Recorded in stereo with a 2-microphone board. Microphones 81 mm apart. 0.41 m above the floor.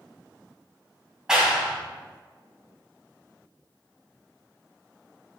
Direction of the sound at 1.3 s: 10° right (ahead or behind).